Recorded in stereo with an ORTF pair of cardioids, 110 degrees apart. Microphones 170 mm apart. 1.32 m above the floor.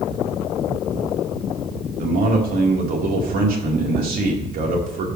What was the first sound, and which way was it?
A man speaking, 60° right.